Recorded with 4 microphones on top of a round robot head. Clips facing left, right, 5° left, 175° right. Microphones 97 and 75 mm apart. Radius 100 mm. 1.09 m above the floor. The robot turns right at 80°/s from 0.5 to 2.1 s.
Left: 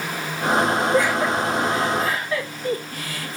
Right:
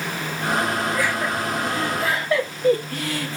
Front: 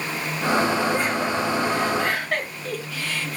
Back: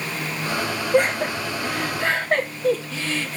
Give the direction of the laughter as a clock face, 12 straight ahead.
7 o'clock.